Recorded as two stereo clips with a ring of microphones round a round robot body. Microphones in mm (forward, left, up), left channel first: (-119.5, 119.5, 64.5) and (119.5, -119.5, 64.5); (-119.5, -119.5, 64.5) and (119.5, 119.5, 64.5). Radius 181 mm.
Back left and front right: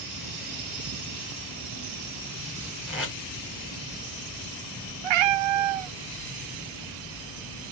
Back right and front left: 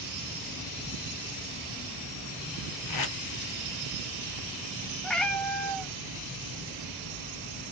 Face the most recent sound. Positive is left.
turn(degrees=-45)